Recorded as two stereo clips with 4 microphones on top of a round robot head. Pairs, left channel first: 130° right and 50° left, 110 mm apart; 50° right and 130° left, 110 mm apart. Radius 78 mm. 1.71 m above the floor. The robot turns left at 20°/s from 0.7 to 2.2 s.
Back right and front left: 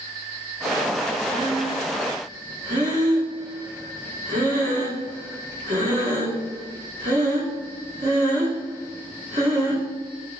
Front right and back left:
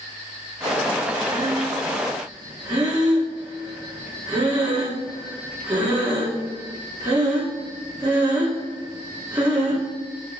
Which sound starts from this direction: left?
Breathing, at 1.3 s.